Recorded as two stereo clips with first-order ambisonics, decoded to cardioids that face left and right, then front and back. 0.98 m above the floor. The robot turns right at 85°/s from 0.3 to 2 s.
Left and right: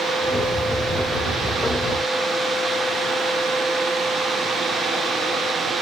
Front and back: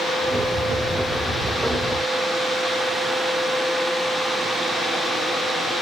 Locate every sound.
Only background noise.